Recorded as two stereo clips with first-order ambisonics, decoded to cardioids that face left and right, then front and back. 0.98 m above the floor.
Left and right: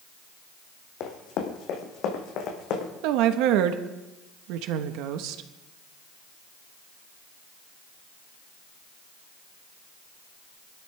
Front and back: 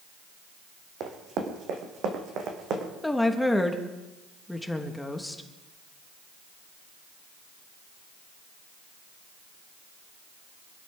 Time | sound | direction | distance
1.0 | running footsteps | 130° left | 2.5 m
3.0 | a woman speaking | 85° right | 1.1 m